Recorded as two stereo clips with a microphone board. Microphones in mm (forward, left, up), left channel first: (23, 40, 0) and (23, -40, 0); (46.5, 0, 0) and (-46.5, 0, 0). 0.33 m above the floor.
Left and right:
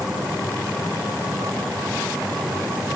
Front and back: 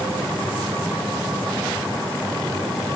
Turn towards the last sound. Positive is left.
No sound to turn to.